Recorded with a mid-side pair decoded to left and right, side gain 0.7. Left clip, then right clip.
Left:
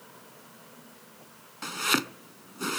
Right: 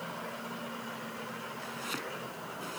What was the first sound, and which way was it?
Chopping, 55° left.